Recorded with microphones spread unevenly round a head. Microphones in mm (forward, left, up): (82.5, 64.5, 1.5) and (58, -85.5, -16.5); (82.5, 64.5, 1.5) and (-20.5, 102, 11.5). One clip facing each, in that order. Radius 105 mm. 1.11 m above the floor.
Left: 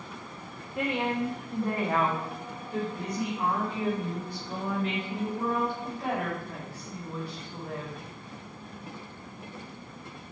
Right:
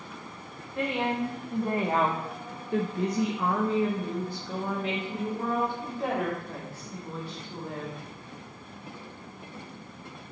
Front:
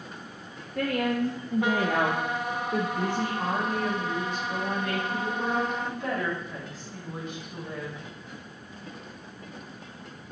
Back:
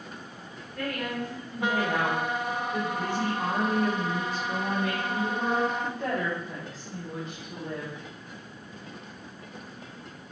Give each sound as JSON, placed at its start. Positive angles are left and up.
{"t": 0.8, "sound": "a woman speaking", "azimuth_deg": -10, "distance_m": 1.4}